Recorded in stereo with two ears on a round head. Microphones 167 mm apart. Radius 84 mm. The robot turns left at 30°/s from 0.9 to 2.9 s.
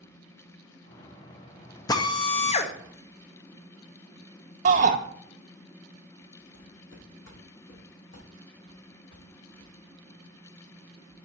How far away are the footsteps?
About 3 m.